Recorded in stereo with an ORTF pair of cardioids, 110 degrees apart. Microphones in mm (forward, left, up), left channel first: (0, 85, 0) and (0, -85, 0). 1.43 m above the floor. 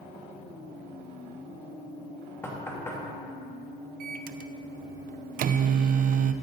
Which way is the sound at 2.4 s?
15° left.